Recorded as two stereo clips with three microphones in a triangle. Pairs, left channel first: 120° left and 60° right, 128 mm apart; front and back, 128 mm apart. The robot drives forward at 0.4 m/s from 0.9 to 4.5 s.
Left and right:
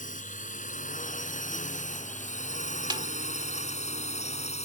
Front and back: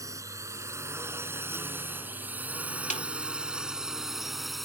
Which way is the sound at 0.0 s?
115° left.